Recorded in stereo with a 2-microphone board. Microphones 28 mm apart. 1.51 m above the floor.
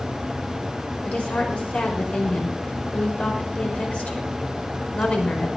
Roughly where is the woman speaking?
Left.